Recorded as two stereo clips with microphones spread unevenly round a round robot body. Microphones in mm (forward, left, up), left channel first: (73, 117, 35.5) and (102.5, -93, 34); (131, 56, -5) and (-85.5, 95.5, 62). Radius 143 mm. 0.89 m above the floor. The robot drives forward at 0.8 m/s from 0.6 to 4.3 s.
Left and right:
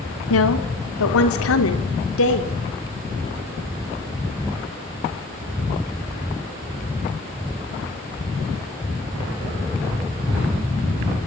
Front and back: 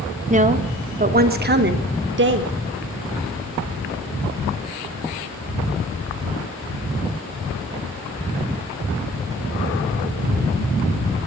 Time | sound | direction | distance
0.3 | a woman speaking | 110° left | 2.5 m